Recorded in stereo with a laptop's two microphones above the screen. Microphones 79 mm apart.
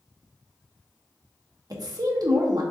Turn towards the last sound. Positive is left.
turn(degrees=-50)  # may be behind; listen again after turning